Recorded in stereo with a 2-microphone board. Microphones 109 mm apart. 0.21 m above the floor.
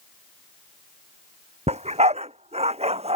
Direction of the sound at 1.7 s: 90° right.